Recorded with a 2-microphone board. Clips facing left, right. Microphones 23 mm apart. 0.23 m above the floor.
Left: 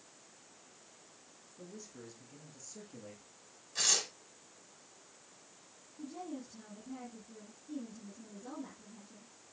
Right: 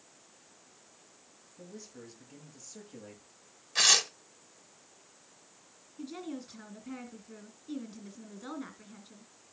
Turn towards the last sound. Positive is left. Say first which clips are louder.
# right 3 dB
turn(degrees=-60)  # may be behind; listen again after turning